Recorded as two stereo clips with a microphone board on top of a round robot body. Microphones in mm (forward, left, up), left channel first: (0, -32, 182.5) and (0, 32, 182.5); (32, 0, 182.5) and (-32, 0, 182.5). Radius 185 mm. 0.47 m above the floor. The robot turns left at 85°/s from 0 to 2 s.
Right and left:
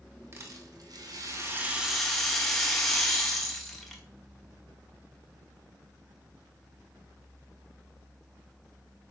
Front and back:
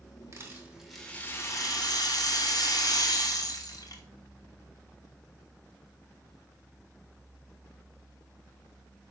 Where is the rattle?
140° left, 2.5 m; by 4.0 s 5° right, 2.5 m.